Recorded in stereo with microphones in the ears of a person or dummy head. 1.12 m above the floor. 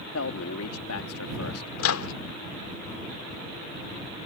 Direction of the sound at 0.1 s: 75° left (ahead or behind).